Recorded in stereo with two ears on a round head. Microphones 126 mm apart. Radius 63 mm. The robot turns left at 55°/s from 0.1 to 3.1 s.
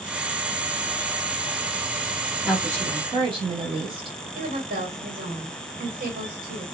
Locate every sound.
2.4 s a woman speaking: 10° right, 1.1 m; by 4.2 s 45° right, 1.1 m
4.3 s a woman speaking: 70° right (ahead or behind), 1.3 m